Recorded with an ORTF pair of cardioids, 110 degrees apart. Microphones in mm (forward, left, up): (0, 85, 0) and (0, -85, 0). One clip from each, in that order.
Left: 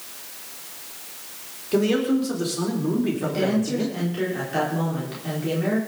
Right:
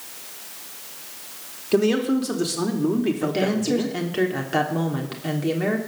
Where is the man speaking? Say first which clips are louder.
Right 1 dB; 30° right, 4 m.